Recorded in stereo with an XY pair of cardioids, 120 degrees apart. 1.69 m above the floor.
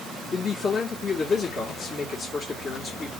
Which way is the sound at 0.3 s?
40° left.